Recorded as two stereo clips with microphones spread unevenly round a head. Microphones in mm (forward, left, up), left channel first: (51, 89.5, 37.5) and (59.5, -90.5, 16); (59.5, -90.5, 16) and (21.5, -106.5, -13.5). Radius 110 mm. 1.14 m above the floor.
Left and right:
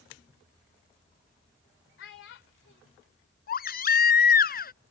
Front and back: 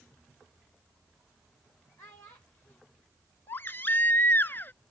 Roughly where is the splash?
No splash in this recording.